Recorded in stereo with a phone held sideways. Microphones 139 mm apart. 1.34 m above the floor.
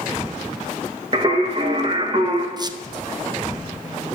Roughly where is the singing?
Right.